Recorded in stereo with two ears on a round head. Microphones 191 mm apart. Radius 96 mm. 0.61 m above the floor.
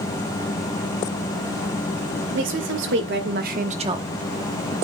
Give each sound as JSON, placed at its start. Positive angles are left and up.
{"t": 2.3, "sound": "a woman speaking", "side_deg": -60, "distance_m": 2.0}